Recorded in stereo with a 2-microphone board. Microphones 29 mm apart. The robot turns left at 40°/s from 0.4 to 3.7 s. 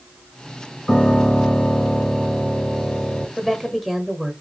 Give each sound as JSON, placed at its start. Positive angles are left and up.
{"t": 0.9, "sound": "a piano", "azimuth_deg": 165, "distance_m": 1.7}
{"t": 3.4, "sound": "a woman speaking", "side_deg": 5, "distance_m": 1.0}